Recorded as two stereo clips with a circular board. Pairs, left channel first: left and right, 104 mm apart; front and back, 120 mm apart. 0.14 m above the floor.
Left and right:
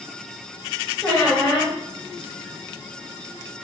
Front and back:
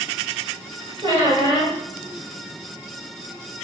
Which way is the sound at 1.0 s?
165° left.